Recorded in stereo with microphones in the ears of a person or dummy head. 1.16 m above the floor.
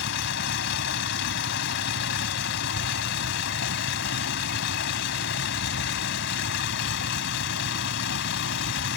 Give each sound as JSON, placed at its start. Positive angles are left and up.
{"t": 0.0, "sound": "a vehicle", "side_deg": 65}